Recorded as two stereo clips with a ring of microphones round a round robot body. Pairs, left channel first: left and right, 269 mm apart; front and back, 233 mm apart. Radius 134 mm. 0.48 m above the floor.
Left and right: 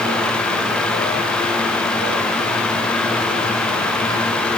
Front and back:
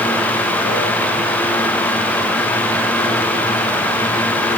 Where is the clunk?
I don't hear a clunk.